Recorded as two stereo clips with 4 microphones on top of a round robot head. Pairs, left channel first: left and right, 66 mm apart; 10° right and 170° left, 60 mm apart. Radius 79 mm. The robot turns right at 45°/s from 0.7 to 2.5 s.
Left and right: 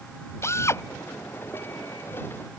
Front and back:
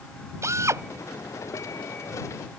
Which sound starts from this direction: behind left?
A drill, at 0.4 s.